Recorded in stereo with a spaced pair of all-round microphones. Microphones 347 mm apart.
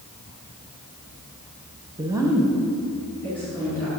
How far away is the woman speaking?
About 0.8 m.